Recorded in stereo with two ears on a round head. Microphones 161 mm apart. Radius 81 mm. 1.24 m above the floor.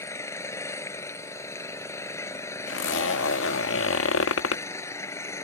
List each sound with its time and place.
0.0 s an engine running: 15° left (ahead or behind)
2.7 s a zipper: 80° left